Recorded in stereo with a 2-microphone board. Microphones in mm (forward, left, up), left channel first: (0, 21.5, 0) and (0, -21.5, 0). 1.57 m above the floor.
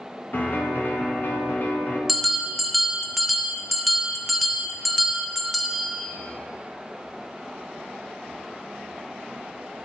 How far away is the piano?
About 1.0 m.